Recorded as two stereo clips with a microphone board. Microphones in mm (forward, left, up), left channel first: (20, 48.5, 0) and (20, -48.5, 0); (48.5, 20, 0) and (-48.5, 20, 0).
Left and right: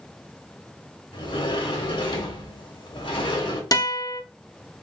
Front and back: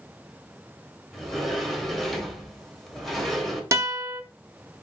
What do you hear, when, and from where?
1.1 s a sliding door: 90° left, 1.3 m
3.7 s a guitar: 125° left, 0.8 m